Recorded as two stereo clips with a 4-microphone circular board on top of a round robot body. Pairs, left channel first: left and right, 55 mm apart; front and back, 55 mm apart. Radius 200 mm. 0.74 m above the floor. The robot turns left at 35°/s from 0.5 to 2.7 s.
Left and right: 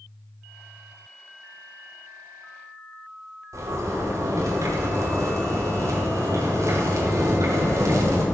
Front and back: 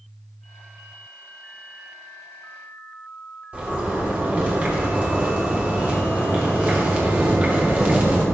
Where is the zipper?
115° right, 3 m.